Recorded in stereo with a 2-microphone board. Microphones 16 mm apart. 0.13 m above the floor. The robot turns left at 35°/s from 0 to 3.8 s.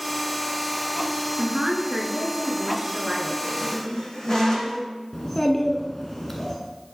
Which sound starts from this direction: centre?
A child speaking, at 5.1 s.